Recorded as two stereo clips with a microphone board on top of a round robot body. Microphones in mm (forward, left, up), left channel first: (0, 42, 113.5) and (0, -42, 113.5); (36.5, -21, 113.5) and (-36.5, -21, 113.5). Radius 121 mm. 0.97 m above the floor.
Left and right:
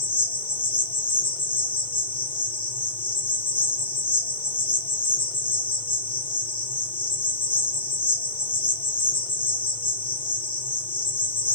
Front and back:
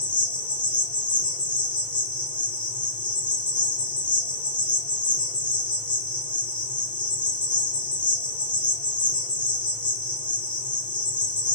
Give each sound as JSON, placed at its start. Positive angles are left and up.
{"t": 0.0, "sound": "an insect", "azimuth_deg": 70, "distance_m": 3.5}